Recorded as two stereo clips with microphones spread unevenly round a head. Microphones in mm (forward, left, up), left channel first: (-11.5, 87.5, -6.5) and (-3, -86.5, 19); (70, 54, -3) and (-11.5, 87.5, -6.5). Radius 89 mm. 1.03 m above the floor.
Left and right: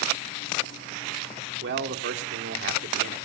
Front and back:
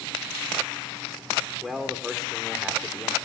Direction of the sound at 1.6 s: 115° right.